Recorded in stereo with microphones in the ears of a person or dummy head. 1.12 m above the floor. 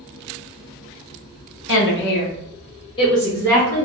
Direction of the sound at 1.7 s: 75° left (ahead or behind).